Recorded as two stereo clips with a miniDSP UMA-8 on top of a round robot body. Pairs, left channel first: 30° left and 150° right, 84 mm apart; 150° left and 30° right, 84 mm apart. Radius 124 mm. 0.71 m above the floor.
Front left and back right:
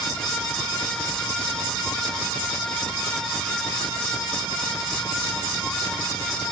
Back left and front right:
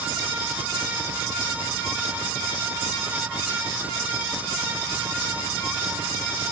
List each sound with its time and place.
Only background noise.